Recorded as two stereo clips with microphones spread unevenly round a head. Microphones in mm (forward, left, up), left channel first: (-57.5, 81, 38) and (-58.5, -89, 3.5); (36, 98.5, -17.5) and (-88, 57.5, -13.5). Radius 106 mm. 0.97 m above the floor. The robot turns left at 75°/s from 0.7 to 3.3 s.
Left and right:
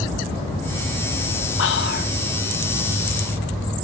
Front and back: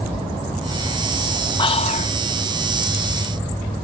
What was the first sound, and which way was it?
Whispering, 70° left.